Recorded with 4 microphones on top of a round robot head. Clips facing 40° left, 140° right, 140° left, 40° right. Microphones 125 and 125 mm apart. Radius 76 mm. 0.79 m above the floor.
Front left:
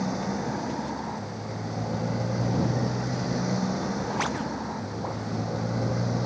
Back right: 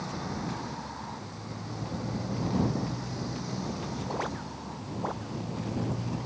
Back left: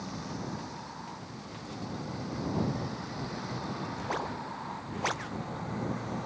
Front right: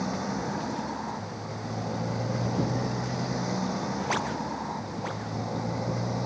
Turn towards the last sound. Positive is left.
turn(degrees=15)